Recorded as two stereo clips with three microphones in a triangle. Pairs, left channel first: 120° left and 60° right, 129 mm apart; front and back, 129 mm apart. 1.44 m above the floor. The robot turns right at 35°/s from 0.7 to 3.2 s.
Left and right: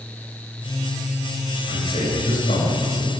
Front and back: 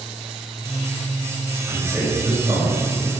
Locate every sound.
1.7 s a man speaking: 95° left, 7 m; by 3.1 s 145° left, 7 m